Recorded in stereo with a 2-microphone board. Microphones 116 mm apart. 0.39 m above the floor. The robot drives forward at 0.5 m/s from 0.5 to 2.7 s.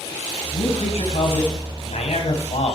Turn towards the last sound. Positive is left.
turn(degrees=65)  # may be behind; listen again after turning